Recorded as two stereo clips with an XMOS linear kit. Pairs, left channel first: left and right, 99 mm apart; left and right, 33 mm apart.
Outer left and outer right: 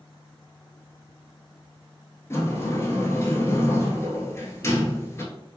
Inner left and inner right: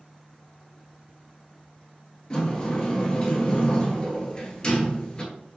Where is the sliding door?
30° left (ahead or behind), 0.8 m.